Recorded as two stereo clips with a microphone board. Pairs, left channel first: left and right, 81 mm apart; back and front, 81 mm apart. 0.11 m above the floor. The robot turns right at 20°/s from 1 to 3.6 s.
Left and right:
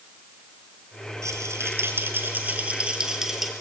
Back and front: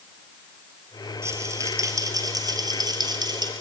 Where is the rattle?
50° right, 2 m; by 3.5 s 5° right, 2 m.